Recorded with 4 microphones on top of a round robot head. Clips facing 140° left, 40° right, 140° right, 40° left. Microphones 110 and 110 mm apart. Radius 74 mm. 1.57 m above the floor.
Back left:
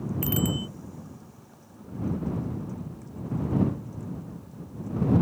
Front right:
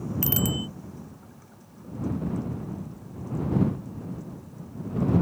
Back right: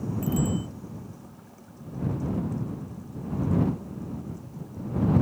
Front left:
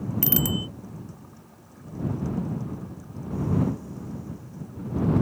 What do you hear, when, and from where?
0.2 s a bicycle bell: 20° left